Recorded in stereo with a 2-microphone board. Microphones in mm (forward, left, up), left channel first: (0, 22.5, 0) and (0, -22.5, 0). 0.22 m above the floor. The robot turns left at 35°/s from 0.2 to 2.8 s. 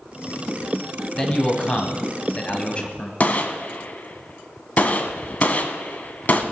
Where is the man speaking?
20° left (ahead or behind), 1.0 m; by 3.1 s 25° left (ahead or behind), 1.0 m.